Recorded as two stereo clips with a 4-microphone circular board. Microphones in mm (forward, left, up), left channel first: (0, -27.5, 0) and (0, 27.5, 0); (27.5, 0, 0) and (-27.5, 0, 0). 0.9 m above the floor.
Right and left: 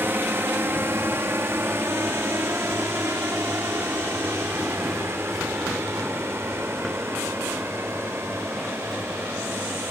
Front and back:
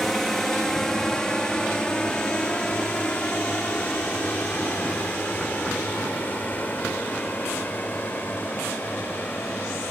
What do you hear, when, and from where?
0.0 s a drone: 80° left; by 9.9 s 50° left